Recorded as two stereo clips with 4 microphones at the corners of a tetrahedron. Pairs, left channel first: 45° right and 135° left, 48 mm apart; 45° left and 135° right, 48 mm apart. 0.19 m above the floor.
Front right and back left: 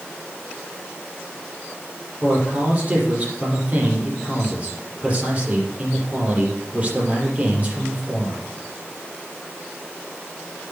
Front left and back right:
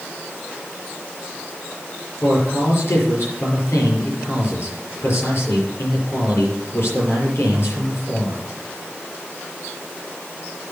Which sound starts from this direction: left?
A man speaking, at 2.2 s.